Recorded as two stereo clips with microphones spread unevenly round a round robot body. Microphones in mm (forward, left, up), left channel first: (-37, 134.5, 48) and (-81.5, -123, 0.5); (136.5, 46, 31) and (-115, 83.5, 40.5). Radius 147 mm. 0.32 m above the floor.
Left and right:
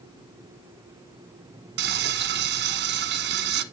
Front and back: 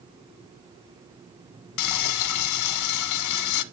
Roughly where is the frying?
Ahead right.